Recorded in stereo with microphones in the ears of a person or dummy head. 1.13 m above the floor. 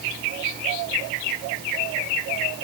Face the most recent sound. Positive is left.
No sound to turn to.